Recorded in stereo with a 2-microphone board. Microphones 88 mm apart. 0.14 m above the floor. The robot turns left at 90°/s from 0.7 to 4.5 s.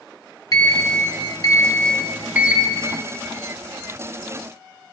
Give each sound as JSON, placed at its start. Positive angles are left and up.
{"t": 0.5, "sound": "a sliding door", "azimuth_deg": 130, "distance_m": 0.7}